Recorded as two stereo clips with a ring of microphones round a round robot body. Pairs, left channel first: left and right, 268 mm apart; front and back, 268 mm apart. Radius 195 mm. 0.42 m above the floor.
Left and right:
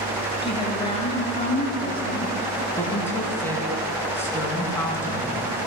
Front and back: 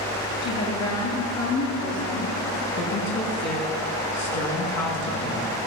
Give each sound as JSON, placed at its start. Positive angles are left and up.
{"t": 0.4, "sound": "a woman speaking", "azimuth_deg": 20, "distance_m": 6.5}
{"t": 2.7, "sound": "a woman speaking", "azimuth_deg": 10, "distance_m": 5.5}